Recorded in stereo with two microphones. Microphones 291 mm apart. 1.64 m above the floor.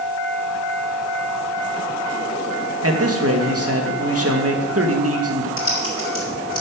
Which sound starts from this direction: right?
A man speaking, at 2.8 s.